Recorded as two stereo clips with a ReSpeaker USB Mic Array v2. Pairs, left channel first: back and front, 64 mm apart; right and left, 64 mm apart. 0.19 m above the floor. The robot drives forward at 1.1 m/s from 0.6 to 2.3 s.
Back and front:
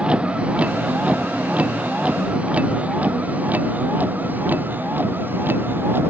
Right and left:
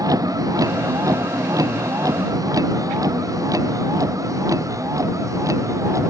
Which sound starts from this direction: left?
A vehicle, at 0.0 s.